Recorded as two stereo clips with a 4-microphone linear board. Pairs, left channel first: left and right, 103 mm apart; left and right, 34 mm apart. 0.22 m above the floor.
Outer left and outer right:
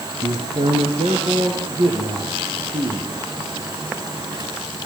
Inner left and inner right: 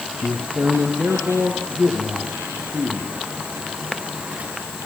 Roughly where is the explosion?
No explosion in this recording.